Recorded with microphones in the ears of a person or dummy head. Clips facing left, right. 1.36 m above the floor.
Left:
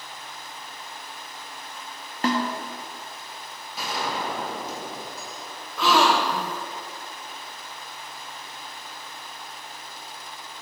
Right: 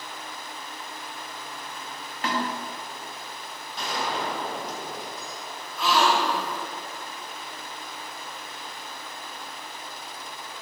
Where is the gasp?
65° left (ahead or behind), 0.8 m.